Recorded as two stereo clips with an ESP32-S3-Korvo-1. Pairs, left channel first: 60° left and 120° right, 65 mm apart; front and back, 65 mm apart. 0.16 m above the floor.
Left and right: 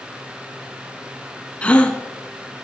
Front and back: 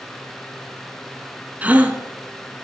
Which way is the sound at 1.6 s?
125° left.